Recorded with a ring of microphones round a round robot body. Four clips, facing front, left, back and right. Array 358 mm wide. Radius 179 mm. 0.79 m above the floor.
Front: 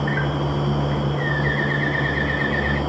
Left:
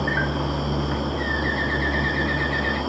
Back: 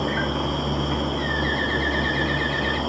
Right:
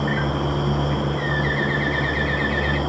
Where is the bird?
155° right, 1.9 m.